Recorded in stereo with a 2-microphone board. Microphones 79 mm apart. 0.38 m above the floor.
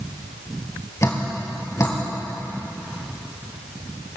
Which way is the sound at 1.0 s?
40° left (ahead or behind).